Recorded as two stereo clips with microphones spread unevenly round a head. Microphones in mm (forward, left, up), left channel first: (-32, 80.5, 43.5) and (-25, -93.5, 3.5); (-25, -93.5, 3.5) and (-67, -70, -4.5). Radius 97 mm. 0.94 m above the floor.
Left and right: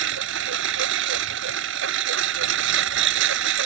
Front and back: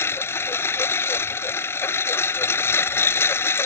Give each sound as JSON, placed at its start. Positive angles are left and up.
{"t": 0.0, "sound": "a lawn mower", "azimuth_deg": -60}